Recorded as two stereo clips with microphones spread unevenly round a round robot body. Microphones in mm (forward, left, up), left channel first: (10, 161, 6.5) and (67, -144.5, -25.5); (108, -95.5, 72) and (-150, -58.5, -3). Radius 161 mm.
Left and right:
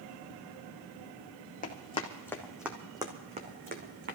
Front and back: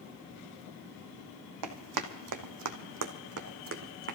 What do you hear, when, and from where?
1.6 s running footsteps: 165° left, 1.5 m; by 4.2 s 140° right, 2 m